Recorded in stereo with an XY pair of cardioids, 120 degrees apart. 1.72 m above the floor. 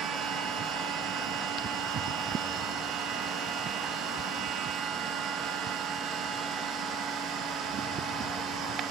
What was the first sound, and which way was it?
A machine running, 70° right.